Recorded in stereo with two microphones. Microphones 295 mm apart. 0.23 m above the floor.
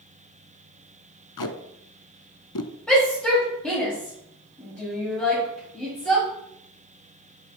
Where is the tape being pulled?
85° left, 0.6 m.